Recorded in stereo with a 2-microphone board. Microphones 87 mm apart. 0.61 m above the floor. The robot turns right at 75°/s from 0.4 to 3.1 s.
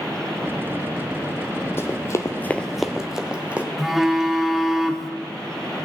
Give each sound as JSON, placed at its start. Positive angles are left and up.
{"t": 1.8, "sound": "running footsteps", "side_deg": 30, "distance_m": 1.3}
{"t": 3.8, "sound": "a phone buzzing", "side_deg": -5, "distance_m": 1.1}